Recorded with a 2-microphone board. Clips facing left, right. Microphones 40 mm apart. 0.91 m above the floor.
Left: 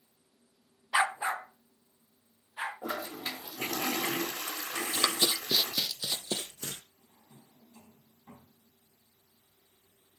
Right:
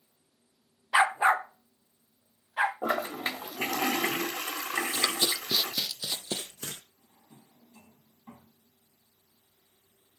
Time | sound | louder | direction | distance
0.9 | a dog barking | right 6 dB | 15° right (ahead or behind) | 0.5 m
2.8 | a toilet flushing | right 7 dB | 45° right (ahead or behind) | 1.4 m
4.8 | running footsteps | right 1 dB | 35° left (ahead or behind) | 1.9 m
7.0 | a drawer | right 1 dB | 30° right (ahead or behind) | 4.5 m